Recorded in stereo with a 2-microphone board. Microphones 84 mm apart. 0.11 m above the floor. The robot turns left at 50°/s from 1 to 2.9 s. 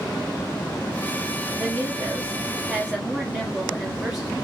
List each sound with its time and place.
1.6 s a woman speaking: 95° right, 1.7 m; by 4.3 s 160° right, 1.7 m